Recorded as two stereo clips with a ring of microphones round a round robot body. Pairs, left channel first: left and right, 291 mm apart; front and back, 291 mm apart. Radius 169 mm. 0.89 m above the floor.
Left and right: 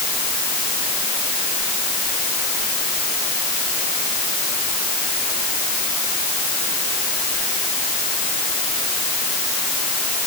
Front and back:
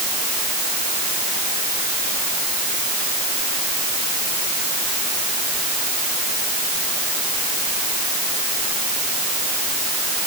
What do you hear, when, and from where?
Only background noise.